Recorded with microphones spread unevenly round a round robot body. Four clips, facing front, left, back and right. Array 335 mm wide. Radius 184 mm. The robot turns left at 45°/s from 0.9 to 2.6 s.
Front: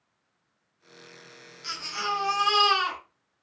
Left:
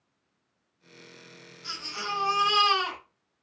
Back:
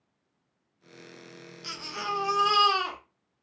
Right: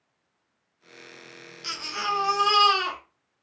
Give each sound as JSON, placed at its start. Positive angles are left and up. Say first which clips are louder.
{"t": 1.6, "sound": "a baby crying", "louder": "right 6 dB, front 3 dB", "azimuth_deg": -100, "distance_m": 0.9}